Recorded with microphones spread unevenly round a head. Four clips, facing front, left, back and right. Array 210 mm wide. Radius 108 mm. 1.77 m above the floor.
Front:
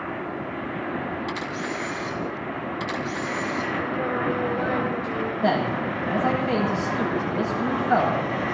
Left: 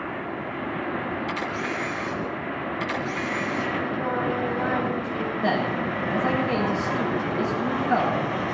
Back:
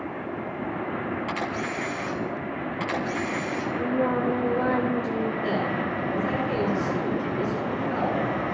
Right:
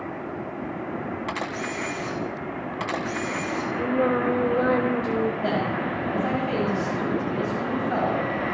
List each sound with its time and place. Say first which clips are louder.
1.3 s a camera shutter: left 1 dB, even; 110° right, 2.5 m
3.8 s singing: right 4 dB, back 5 dB; 100° right, 3.5 m
5.4 s a man speaking: left 1 dB, front 3 dB; 5° left, 9.5 m